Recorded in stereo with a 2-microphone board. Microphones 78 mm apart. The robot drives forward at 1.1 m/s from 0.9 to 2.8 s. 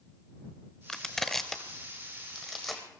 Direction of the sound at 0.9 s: 10° left (ahead or behind).